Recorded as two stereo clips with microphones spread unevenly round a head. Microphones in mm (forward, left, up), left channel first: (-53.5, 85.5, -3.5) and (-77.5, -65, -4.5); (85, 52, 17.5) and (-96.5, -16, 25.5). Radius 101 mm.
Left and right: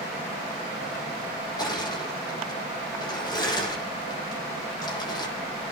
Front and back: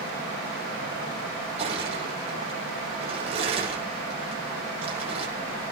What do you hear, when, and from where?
1.6 s crushing: 145° left, 8.5 m